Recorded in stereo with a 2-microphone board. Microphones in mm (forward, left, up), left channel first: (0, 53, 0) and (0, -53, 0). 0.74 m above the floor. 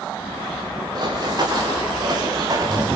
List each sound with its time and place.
0.9 s running footsteps: 45° right (ahead or behind), 6.5 m; by 2.9 s 40° right (ahead or behind), 5.5 m